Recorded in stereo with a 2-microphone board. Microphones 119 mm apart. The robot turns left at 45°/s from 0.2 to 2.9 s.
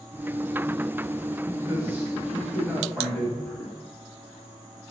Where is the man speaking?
30° right (ahead or behind), 1.9 m; by 3.7 s 10° left (ahead or behind), 1.9 m.